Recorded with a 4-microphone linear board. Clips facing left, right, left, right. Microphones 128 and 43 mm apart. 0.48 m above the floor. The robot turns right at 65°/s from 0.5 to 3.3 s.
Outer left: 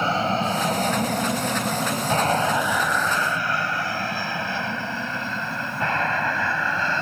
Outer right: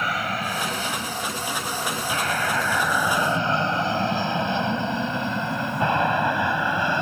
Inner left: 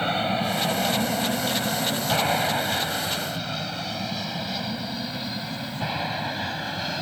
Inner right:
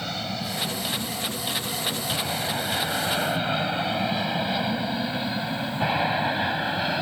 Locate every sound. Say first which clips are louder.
0.0 s an aircraft: outer left 5 dB, inner left 7 dB; 30° left (ahead or behind); by 7.0 s 15° right (ahead or behind)